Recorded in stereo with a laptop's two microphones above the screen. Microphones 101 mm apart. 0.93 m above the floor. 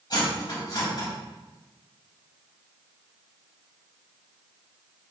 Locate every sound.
0.1 s cutlery clinking: 45° left (ahead or behind), 3 m